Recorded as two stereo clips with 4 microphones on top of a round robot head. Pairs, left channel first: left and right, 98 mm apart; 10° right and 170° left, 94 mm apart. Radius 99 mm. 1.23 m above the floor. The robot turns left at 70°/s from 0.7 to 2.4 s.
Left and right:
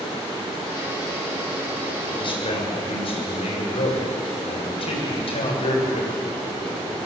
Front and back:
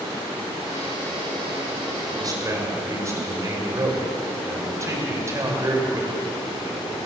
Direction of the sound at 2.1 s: 130° left.